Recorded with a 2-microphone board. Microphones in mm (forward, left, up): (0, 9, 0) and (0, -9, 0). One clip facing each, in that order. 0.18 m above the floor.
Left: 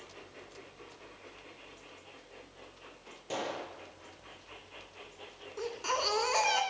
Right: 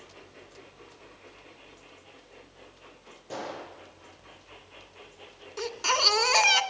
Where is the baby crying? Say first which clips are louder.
Right 8 dB; 50° right (ahead or behind), 1.6 m.